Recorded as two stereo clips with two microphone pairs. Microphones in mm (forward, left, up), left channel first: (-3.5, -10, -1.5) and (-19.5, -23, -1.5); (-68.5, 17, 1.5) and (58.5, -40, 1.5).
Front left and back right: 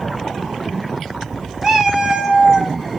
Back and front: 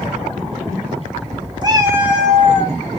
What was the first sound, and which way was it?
A cat meowing, 80° right.